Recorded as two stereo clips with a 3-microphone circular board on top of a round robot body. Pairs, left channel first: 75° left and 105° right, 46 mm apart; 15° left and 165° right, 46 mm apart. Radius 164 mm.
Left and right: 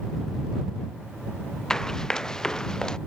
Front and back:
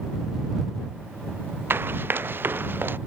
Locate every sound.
1.7 s running footsteps: 155° left; by 3.0 s 150° left